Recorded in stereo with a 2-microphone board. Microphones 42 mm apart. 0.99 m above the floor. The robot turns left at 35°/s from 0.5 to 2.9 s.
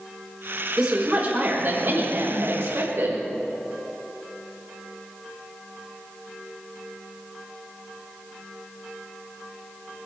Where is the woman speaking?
20° right, 5 m; by 3.2 s 95° right, 5 m.